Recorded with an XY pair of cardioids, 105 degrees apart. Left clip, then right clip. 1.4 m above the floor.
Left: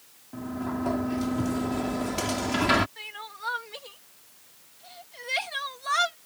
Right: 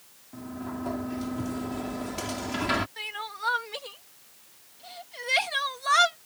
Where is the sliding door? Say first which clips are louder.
Left 4 dB; 30° left.